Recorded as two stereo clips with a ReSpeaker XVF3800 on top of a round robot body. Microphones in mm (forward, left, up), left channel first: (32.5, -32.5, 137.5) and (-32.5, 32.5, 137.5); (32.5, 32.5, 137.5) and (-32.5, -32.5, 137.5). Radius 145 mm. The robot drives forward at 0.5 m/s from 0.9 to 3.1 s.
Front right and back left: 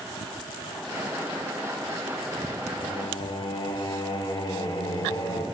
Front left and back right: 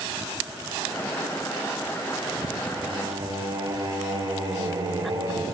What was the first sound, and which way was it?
Singing, 80° right.